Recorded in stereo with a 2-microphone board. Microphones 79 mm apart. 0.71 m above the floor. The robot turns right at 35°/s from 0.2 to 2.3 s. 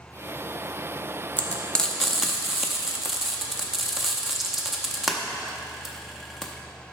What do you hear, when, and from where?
1.4 s frying: 20° left (ahead or behind), 0.8 m; by 6.5 s 5° right (ahead or behind), 0.8 m